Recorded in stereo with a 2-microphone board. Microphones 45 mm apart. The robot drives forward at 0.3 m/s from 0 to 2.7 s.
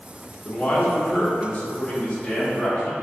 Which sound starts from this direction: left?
A man speaking, at 0.5 s.